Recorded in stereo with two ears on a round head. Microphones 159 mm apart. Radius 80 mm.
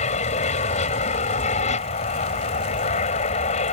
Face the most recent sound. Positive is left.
turn(degrees=45)  # may be behind; listen again after turning